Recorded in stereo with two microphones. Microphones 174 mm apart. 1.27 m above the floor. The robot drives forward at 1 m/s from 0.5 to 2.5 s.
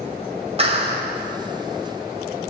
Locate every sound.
0.6 s a clap: 35° right (ahead or behind), 5.5 m